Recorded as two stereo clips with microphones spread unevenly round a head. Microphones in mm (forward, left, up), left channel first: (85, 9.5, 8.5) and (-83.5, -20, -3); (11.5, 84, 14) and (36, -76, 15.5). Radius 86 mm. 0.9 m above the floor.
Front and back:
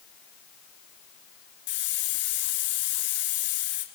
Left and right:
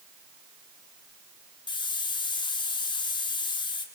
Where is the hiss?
35° left, 2.5 m.